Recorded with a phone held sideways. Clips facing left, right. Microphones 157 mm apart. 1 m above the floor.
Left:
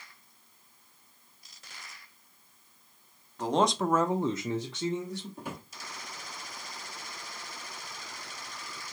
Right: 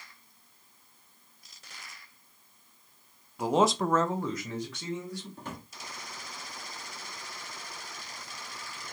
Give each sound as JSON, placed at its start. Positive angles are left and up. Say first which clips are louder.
{"t": 3.4, "sound": "a man speaking", "louder": "right 1 dB", "side_deg": -10, "distance_m": 0.8}
{"t": 5.4, "sound": "a drawer", "louder": "left 1 dB", "side_deg": 10, "distance_m": 1.1}